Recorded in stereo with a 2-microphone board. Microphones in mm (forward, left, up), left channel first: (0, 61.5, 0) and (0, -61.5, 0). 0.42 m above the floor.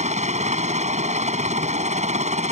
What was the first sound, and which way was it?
A helicopter, 70° right (ahead or behind).